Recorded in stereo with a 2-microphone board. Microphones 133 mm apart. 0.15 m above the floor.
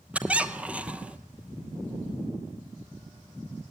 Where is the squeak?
10° right (ahead or behind), 0.8 m.